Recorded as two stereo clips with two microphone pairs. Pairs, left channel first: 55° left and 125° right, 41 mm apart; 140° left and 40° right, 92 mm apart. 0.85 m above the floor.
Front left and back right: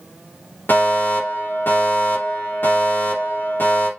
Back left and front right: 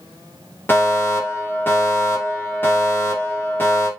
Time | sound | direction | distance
0.7 | a fire alarm | 75° left | 3.5 m